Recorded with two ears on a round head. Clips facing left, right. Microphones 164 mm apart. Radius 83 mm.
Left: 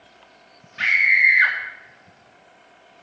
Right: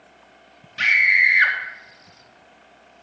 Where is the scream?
45° right (ahead or behind), 2.5 m.